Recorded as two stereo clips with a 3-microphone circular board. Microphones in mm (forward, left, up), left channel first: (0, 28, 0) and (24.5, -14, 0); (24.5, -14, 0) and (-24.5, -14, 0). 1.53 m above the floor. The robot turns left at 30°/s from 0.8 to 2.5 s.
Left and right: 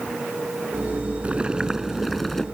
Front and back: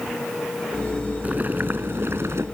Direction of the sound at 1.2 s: 120° right.